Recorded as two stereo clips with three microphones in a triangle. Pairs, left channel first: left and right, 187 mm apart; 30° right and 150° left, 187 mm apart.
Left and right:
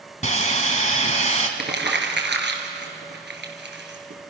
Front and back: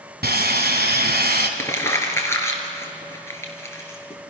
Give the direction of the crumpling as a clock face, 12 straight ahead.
4 o'clock.